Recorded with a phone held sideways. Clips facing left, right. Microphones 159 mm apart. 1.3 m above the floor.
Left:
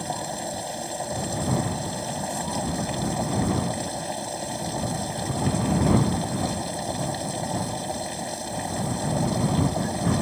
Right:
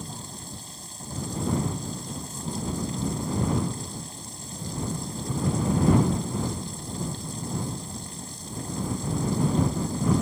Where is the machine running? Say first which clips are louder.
Left 10 dB; 80° left.